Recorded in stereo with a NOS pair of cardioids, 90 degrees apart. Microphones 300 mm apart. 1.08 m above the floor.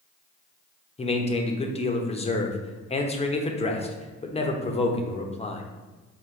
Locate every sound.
1.0 s a man speaking: 20° left, 0.9 m